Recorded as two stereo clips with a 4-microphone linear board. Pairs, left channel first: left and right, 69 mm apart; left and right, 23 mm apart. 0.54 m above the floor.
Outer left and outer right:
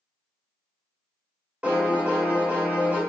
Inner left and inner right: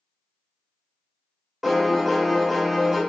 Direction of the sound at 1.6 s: 15° right (ahead or behind).